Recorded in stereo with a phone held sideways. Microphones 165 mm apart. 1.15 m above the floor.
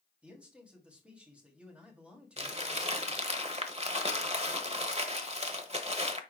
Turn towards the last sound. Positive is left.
turn(degrees=-40)  # may be behind; listen again after turning